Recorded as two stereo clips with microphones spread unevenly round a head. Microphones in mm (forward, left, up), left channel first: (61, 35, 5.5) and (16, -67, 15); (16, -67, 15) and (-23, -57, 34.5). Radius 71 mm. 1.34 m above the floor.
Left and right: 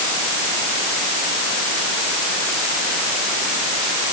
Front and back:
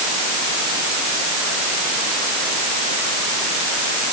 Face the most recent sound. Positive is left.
No sound to turn to.